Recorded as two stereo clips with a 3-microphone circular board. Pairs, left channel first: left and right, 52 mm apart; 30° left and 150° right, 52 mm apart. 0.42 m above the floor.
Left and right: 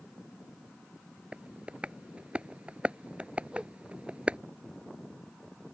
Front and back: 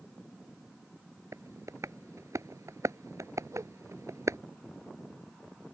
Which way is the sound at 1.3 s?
160° right.